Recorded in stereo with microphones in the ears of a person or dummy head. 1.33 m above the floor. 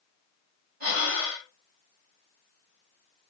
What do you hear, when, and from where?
0.8 s breathing: 45° right (ahead or behind), 1.7 m